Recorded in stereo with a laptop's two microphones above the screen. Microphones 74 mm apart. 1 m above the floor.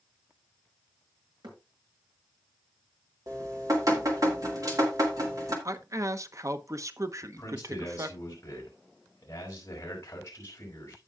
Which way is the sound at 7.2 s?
40° left (ahead or behind).